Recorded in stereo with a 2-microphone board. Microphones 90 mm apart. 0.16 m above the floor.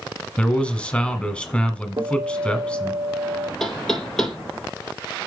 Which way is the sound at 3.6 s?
5° left (ahead or behind).